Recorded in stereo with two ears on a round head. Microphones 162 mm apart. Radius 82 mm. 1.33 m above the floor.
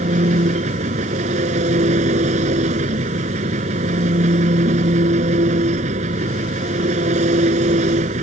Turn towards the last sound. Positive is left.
turn(degrees=-40)  # may be behind; listen again after turning